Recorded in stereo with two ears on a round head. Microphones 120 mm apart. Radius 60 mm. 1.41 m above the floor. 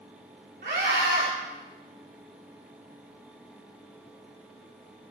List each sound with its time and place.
0.6 s a scream: 80° right, 3.5 m